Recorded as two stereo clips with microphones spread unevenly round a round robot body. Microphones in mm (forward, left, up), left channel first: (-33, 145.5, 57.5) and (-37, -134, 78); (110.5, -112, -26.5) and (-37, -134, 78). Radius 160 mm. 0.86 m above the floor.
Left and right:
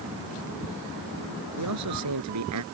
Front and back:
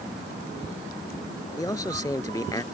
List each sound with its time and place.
1.6 s a man speaking: 60° right